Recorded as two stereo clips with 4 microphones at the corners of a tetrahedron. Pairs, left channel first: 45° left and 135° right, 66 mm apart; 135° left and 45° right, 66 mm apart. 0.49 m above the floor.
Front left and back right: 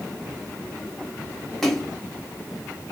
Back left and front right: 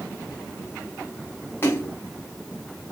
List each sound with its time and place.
1.6 s a splash: 125° left, 1.0 m